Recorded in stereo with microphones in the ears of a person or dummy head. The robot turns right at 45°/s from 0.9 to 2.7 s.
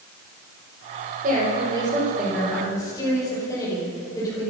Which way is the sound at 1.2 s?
55° right.